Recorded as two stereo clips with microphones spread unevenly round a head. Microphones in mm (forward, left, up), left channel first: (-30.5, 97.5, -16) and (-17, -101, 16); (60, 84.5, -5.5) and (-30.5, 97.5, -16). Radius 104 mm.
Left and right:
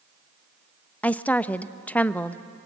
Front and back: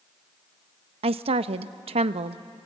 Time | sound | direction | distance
1.0 | a woman speaking | 175° left | 0.7 m